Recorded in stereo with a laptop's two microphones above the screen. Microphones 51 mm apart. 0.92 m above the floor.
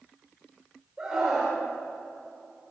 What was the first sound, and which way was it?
A scream, 15° right (ahead or behind).